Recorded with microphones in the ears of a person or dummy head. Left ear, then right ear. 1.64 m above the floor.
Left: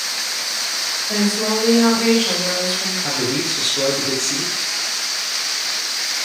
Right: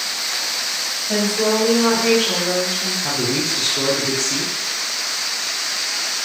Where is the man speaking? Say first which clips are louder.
Even; 10° left (ahead or behind), 0.6 m.